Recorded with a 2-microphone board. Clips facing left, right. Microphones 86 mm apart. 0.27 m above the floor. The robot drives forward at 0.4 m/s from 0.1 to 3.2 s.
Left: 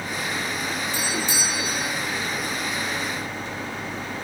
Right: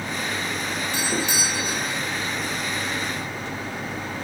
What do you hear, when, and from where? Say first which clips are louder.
0.9 s a doorbell: right 1 dB; 65° right (ahead or behind), 4 m